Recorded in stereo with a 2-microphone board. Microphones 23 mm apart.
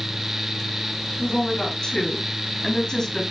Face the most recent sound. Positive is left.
turn(degrees=35)  # may be behind; listen again after turning